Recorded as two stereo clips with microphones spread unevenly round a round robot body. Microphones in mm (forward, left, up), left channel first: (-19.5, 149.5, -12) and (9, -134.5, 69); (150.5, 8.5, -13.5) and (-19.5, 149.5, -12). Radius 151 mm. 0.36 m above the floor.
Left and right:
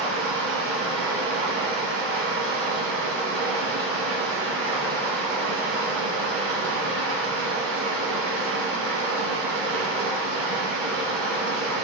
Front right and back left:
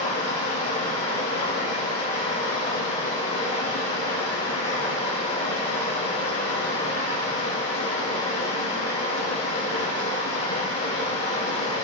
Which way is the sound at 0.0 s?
35° right.